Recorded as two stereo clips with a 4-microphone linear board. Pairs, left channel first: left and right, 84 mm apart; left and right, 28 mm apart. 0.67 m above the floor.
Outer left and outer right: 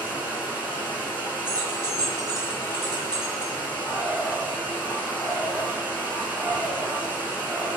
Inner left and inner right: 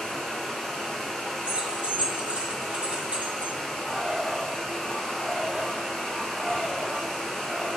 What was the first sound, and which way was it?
Running water, 20° left (ahead or behind).